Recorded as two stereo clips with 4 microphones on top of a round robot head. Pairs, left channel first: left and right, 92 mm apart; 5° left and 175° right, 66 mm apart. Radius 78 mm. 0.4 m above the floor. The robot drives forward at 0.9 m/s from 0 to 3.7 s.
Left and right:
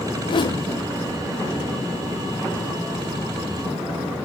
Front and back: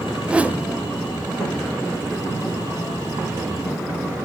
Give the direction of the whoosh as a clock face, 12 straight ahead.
8 o'clock.